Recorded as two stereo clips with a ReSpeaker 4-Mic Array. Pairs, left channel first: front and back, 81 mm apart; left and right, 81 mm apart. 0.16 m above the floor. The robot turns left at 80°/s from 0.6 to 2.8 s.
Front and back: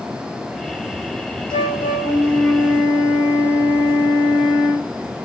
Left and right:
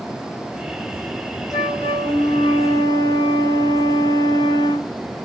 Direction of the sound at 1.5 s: 5° right.